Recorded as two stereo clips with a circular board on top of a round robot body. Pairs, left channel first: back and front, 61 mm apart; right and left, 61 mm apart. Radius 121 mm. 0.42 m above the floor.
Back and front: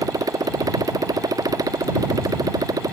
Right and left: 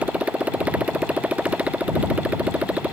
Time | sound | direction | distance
0.0 | a motorcycle | 20° left | ?